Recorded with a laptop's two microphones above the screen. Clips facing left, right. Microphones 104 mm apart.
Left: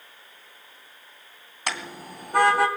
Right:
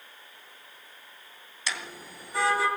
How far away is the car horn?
About 3 m.